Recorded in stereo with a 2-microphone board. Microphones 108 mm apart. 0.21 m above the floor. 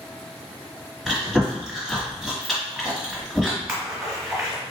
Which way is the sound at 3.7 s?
5° right (ahead or behind).